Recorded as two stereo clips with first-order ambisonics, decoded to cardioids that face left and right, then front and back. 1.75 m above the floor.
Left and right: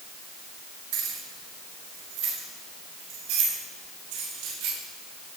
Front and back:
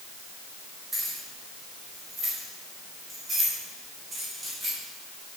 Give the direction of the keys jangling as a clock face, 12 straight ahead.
3 o'clock.